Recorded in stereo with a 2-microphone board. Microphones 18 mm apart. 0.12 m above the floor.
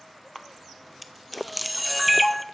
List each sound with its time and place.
0.3 s a camera shutter: 5° left (ahead or behind), 0.6 m